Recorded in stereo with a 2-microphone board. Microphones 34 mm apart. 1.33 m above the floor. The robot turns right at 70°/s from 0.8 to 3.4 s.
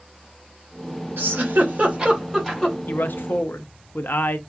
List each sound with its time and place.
1.2 s a giggle: 70° right (ahead or behind), 1.3 m; by 2.8 s 30° left (ahead or behind), 1.3 m
2.9 s a man speaking: 60° left, 0.5 m; by 4.4 s 100° left, 0.5 m